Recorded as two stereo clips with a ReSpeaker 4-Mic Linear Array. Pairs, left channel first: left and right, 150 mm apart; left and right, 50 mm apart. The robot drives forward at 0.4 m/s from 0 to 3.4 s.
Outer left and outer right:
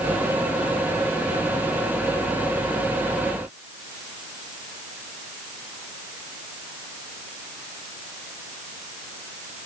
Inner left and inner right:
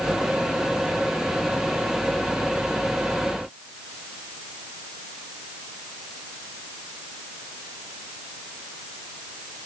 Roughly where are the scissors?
I don't hear scissors.